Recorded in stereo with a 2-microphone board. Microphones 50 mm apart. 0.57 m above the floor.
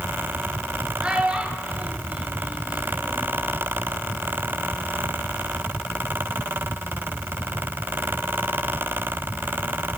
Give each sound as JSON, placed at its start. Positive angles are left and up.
{"t": 1.0, "sound": "a child speaking", "side_deg": -20, "distance_m": 3.0}